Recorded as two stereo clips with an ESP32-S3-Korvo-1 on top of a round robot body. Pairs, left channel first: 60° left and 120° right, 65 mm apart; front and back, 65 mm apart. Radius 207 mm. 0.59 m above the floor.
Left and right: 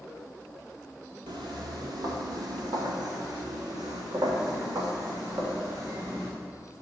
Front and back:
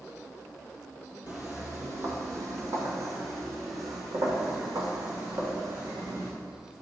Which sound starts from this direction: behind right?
Footsteps, at 1.3 s.